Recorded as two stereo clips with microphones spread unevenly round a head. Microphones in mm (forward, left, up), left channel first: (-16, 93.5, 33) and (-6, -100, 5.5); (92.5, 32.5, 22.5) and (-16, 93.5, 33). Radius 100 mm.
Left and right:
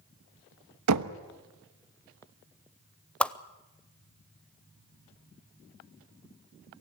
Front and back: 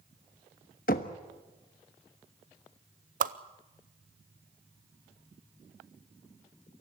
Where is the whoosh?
Straight behind, 0.6 m.